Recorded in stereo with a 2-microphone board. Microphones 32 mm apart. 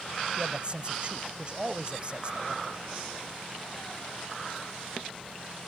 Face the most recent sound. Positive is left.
turn(degrees=-35)  # may be behind; listen again after turning